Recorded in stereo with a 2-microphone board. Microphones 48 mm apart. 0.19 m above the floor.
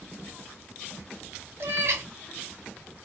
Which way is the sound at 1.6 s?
50° right (ahead or behind).